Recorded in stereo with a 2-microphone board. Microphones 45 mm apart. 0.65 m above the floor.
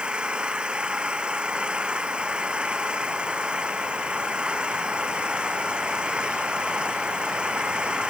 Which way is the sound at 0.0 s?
20° right (ahead or behind).